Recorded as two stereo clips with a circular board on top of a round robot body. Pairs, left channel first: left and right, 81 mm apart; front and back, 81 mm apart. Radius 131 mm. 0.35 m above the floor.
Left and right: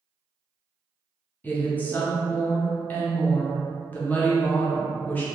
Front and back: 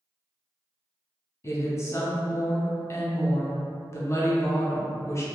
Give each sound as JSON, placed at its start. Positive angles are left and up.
{"t": 1.4, "sound": "a woman speaking", "azimuth_deg": 30, "distance_m": 1.0}